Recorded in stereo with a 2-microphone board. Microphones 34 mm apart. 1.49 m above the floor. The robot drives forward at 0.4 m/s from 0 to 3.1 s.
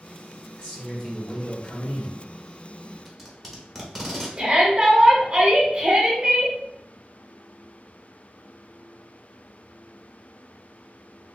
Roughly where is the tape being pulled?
Centre.